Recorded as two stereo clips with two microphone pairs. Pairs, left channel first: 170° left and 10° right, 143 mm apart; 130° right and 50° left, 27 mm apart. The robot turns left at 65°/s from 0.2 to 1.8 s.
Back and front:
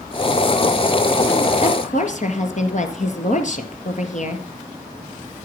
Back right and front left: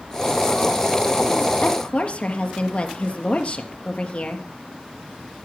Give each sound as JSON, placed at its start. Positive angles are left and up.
{"t": 1.6, "sound": "a woman speaking", "azimuth_deg": -155, "distance_m": 2.5}